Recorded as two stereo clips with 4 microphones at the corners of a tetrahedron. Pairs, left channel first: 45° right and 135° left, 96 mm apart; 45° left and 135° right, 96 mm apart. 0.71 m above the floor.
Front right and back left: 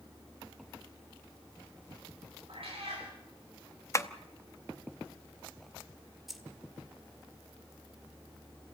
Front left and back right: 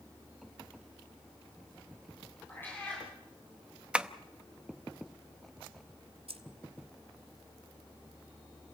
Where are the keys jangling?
135° right, 1.7 m.